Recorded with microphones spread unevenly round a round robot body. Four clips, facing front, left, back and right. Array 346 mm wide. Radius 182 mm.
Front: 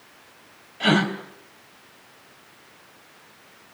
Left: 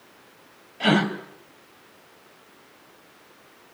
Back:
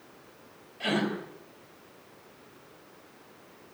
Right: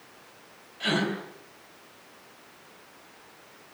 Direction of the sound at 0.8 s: 50° left.